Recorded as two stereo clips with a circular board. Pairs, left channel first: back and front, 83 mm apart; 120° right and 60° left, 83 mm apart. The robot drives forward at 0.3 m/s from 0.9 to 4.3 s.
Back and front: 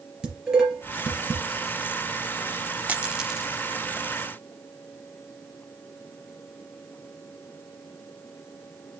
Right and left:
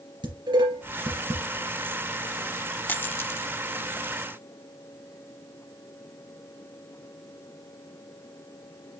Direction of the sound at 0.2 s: 85° left.